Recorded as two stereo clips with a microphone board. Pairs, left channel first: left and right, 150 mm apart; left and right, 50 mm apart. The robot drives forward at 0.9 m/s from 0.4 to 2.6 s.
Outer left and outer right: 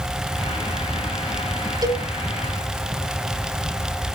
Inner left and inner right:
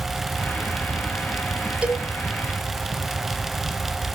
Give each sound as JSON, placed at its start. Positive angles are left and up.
{"t": 1.8, "sound": "a cowbell", "side_deg": -25, "distance_m": 1.3}